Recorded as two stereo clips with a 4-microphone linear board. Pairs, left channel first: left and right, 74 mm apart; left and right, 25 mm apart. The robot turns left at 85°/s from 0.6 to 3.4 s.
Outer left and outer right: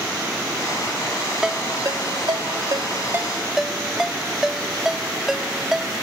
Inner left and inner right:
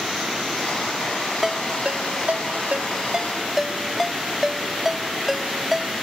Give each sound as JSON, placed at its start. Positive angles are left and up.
{"t": 1.4, "sound": "a ringtone", "side_deg": -5}